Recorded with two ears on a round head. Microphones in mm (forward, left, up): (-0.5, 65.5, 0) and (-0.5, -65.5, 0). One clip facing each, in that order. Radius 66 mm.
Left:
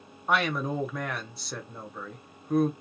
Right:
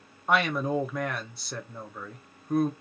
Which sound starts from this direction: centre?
A man speaking, at 0.3 s.